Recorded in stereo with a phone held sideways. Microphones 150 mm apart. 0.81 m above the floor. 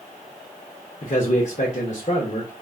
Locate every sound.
1.0 s a man speaking: 50° left (ahead or behind), 0.7 m